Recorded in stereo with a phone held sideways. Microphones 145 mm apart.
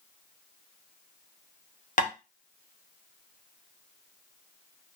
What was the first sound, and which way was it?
Tapping, 60° left (ahead or behind).